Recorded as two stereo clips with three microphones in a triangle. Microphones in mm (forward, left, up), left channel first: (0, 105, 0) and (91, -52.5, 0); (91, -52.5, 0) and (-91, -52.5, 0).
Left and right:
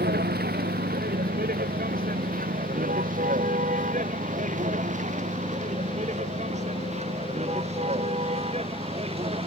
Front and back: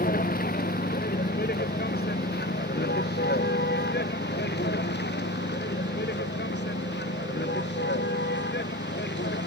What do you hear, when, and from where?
0.0 s a vehicle: 35° right; by 9.5 s 5° right